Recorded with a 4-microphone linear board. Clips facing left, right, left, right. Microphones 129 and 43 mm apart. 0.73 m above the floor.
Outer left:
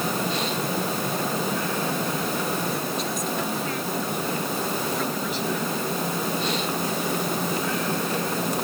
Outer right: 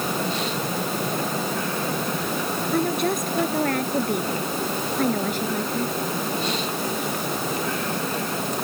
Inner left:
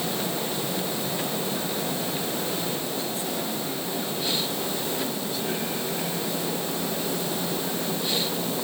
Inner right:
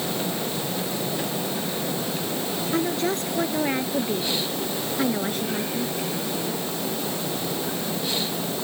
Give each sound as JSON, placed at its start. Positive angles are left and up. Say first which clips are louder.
{"t": 2.7, "sound": "a woman speaking", "louder": "outer right 6 dB, inner right 6 dB", "side_deg": -60}